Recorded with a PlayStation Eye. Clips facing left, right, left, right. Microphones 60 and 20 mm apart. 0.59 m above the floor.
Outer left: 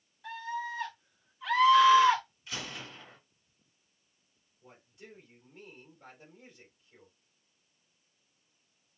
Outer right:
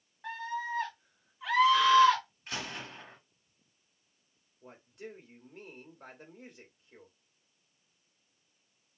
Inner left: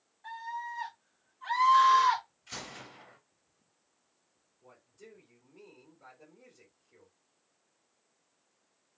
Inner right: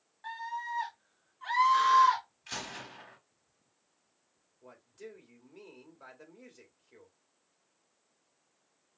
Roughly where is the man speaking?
Right.